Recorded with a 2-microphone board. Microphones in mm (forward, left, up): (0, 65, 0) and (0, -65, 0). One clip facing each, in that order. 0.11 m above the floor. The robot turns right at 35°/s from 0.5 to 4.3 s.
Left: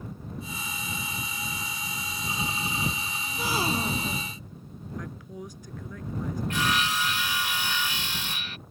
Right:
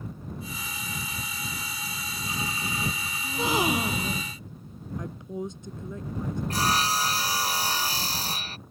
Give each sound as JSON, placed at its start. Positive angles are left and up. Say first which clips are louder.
{"t": 3.2, "sound": "a gasp", "louder": "right 4 dB", "azimuth_deg": -35}
{"t": 5.0, "sound": "a woman speaking", "louder": "right 7 dB", "side_deg": -25}
{"t": 6.5, "sound": "sawing", "louder": "right 2 dB", "side_deg": -35}